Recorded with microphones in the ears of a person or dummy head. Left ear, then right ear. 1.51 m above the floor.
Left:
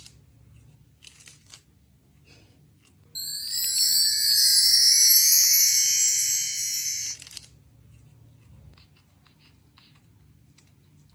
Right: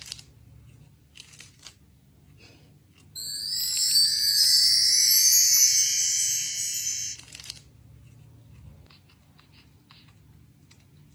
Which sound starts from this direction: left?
A chime, at 3.1 s.